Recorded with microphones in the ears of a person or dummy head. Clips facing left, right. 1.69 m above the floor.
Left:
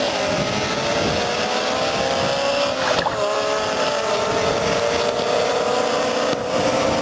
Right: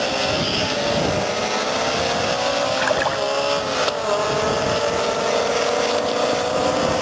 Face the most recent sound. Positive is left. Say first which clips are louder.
# even
turn(degrees=-45)  # may be behind; listen again after turning